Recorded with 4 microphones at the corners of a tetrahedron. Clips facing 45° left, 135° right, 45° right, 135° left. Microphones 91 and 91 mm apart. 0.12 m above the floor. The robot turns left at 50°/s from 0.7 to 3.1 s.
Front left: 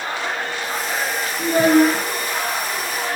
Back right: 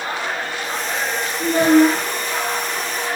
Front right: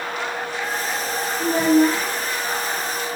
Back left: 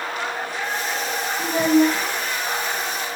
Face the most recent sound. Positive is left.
turn(degrees=-15)